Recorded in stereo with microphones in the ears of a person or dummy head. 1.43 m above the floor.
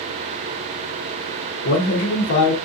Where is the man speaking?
70° left (ahead or behind), 0.8 m.